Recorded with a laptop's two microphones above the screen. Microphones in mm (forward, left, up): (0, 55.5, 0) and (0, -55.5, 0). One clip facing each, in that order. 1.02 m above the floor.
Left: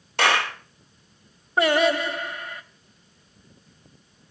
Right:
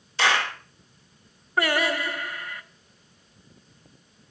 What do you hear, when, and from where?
0.2 s a clap: 65° left (ahead or behind), 1.9 m
1.6 s singing: 25° left (ahead or behind), 1.1 m